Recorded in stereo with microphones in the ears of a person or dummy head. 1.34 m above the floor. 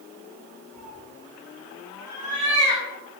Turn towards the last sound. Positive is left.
turn(degrees=60)  # may be behind; listen again after turning